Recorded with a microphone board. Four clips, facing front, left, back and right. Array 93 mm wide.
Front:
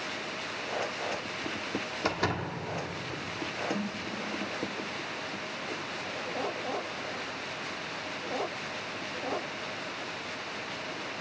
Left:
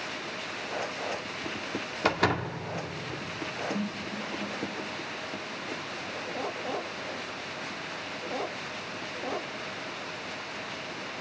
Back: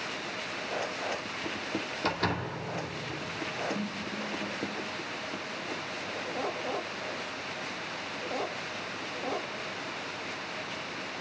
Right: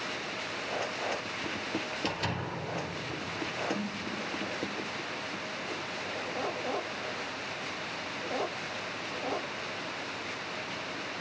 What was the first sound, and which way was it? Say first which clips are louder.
A door slam: left 7 dB, even; 80° left.